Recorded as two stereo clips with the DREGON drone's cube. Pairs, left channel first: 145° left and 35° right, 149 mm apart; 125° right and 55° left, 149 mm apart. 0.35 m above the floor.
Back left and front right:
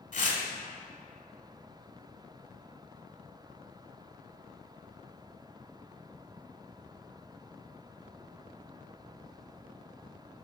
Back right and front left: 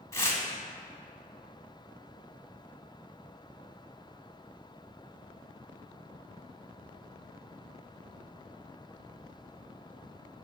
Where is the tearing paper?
165° left, 0.9 m.